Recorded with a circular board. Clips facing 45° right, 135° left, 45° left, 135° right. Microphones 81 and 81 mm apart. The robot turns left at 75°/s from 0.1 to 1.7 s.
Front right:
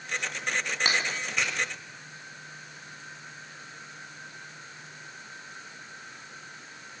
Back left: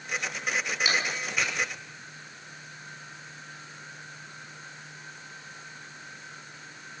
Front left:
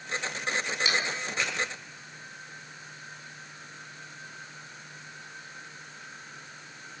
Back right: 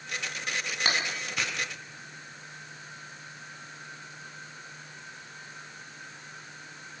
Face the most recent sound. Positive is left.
turn(degrees=-155)